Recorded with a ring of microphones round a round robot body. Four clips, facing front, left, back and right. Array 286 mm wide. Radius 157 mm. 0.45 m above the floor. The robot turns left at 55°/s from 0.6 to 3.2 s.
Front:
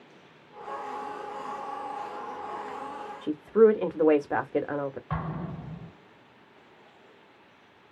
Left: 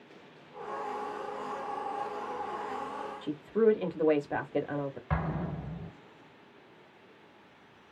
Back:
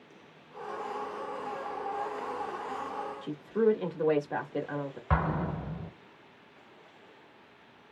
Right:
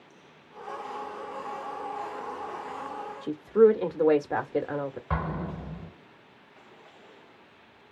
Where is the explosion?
170° right, 0.6 m.